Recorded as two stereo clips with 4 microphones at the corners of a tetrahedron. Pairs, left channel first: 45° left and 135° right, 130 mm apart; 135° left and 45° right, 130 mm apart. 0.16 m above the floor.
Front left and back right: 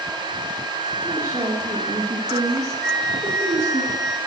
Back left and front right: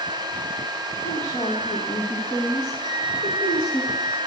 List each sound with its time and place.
1.0 s a woman speaking: 165° left, 4.5 m
2.8 s a flute: 130° left, 3.5 m